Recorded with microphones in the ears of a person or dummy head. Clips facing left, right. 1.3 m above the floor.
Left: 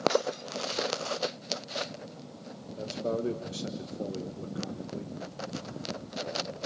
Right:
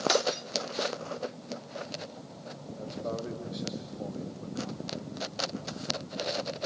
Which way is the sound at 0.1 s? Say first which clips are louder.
Even; 65° right (ahead or behind).